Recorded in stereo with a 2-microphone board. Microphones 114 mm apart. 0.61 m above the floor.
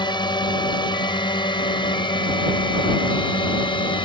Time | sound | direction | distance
0.0 | a drone | 40° left (ahead or behind) | ?